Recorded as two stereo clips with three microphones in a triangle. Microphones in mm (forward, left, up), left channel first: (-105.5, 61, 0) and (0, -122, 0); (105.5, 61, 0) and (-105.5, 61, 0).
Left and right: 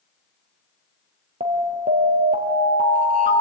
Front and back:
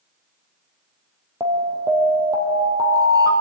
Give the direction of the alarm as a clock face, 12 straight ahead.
4 o'clock.